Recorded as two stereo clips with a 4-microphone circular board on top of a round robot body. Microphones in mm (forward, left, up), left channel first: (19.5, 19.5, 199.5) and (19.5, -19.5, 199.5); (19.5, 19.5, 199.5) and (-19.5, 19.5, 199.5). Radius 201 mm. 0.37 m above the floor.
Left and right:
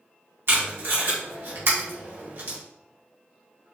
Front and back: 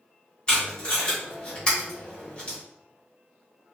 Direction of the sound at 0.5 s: 70° right.